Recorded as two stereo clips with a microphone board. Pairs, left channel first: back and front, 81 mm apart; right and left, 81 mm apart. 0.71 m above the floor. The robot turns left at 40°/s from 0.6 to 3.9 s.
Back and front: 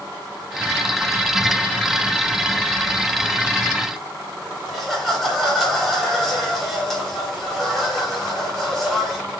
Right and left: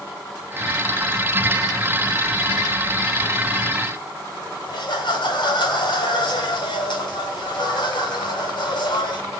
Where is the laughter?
90° right, 4.5 m.